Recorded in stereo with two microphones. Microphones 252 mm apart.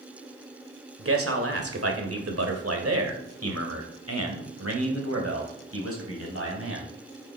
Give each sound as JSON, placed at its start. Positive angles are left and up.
{"t": 1.0, "sound": "a man speaking", "side_deg": -60, "distance_m": 2.5}